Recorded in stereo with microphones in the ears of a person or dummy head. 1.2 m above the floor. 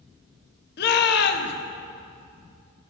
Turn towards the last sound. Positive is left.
turn(degrees=60)  # may be behind; listen again after turning